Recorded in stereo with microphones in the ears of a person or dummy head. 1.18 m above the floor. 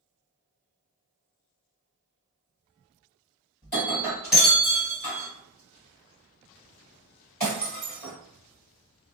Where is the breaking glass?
5° left (ahead or behind), 1.9 m.